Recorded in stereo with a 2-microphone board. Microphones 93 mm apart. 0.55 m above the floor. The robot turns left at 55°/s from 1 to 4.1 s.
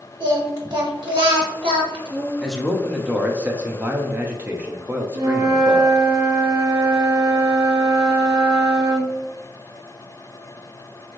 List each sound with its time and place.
0.2 s singing: 55° right, 1.2 m; by 2.3 s 125° right, 1.2 m
2.4 s a man speaking: 5° left (ahead or behind), 0.7 m; by 5.9 s 20° right (ahead or behind), 0.7 m
5.2 s a flute: 45° right (ahead or behind), 1.3 m